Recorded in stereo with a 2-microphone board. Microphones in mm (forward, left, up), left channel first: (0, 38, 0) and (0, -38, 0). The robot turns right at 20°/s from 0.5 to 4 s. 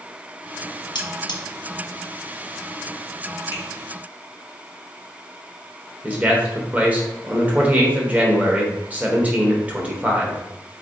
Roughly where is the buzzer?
I don't hear a buzzer.